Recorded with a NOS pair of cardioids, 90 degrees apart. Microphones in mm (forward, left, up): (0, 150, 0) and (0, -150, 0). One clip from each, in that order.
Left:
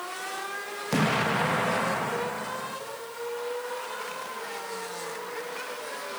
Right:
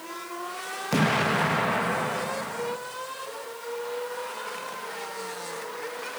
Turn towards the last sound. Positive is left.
turn(degrees=-5)